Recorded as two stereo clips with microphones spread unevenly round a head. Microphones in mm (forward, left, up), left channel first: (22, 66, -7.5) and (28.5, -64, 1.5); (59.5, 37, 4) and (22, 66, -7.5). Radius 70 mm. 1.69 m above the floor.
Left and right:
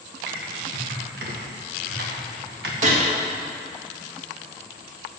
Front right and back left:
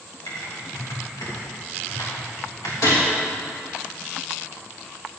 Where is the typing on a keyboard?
95° right, 2 m.